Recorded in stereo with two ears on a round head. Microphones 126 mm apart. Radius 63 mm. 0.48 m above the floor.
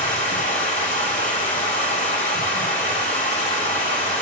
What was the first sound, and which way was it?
Running water, 65° left (ahead or behind).